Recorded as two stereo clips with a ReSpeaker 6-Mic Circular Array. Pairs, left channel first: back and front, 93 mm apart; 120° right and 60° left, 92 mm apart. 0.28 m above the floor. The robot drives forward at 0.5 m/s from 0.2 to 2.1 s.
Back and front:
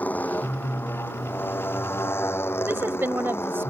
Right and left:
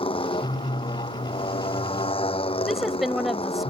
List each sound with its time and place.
0.0 s a motorcycle: 105° right; by 3.7 s 115° right
2.7 s a woman speaking: 30° right